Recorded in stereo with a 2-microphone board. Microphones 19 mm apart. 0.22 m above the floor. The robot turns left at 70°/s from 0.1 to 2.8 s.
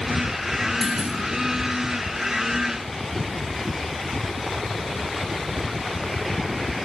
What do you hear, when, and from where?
0.8 s a clunk: 15° right (ahead or behind), 1.8 m; by 1.1 s 35° right (ahead or behind), 1.8 m